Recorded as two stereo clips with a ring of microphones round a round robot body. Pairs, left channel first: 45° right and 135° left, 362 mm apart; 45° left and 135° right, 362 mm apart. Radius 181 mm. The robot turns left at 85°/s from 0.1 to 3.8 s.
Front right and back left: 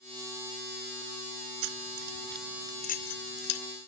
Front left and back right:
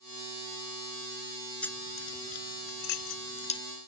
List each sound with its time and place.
1.6 s keys jangling: 135° left; by 3.6 s 35° right